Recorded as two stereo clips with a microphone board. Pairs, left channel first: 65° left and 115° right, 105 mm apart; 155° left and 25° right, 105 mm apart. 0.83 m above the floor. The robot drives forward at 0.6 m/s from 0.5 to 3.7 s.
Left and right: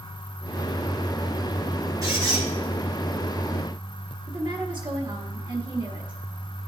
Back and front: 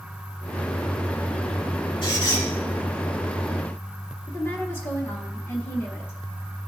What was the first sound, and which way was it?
A squeak, 165° right.